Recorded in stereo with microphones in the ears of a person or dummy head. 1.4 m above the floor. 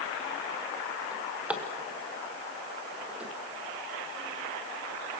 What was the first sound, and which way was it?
A drawer, 5° right (ahead or behind).